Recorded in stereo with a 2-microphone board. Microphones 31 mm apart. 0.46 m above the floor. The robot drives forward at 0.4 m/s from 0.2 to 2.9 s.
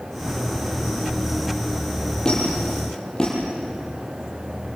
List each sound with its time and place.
2.2 s a squeak: 30° left (ahead or behind), 9.5 m; by 3.4 s 25° left (ahead or behind), 9.5 m